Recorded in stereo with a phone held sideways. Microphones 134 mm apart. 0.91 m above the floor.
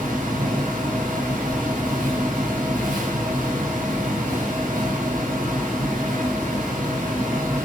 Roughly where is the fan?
Right.